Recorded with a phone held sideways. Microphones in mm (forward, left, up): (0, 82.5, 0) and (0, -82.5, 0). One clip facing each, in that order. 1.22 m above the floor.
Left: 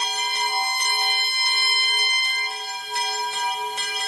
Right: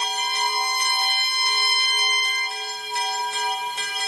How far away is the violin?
About 1.7 m.